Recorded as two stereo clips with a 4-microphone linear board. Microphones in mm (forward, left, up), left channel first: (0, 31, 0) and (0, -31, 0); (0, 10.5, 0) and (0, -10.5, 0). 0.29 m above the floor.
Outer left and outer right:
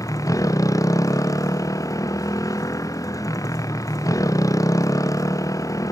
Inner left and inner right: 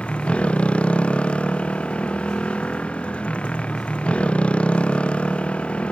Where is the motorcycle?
65° left (ahead or behind).